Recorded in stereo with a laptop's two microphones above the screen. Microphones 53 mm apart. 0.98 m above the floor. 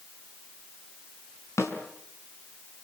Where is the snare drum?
65° left (ahead or behind), 4.5 m.